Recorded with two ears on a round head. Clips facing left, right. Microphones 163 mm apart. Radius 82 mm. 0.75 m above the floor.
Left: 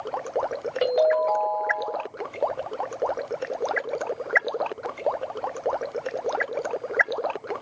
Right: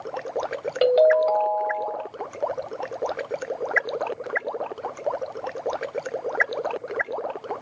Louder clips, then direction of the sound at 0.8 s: Right 4 dB; 40° right (ahead or behind).